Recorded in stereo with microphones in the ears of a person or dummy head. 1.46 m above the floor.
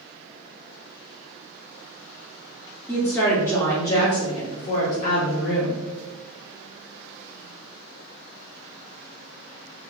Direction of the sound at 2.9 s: 10° left (ahead or behind).